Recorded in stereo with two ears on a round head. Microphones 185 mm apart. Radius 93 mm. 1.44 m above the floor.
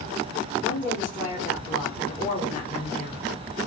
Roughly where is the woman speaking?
Left.